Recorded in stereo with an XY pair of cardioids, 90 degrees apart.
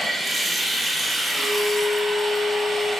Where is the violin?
55° left, 0.9 m.